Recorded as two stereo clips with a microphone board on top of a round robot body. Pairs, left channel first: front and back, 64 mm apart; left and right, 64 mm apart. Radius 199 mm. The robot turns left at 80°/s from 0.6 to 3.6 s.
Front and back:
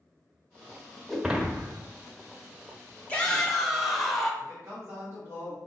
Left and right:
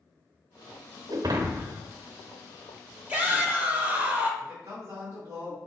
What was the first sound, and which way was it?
Breaking glass, 85° right.